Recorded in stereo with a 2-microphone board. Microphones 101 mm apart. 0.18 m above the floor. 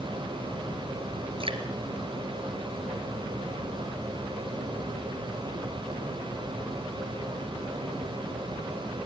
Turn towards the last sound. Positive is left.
turn(degrees=-60)  # may be behind; listen again after turning